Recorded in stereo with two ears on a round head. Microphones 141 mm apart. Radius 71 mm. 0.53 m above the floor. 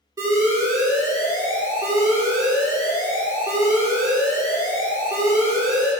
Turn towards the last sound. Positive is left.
turn(degrees=-20)  # may be behind; listen again after turning